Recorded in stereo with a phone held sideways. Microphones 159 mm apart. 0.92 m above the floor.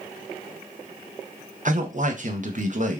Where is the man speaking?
50° right (ahead or behind), 0.6 m.